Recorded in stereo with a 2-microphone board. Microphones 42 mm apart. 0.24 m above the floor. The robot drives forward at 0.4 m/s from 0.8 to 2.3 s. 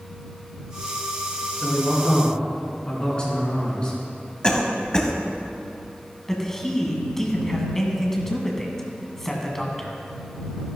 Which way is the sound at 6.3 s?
10° left (ahead or behind).